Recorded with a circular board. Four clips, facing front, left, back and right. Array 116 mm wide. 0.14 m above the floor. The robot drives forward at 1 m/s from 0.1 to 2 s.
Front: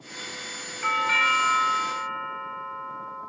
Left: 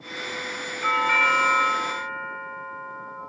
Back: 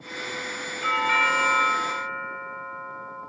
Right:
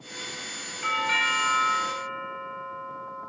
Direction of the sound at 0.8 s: 70° left.